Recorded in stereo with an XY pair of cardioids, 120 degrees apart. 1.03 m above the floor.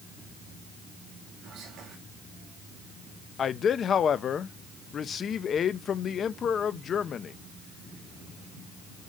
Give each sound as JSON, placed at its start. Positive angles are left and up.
{"t": 1.4, "sound": "whispering", "azimuth_deg": -65, "distance_m": 1.9}
{"t": 3.4, "sound": "a man speaking", "azimuth_deg": 45, "distance_m": 0.7}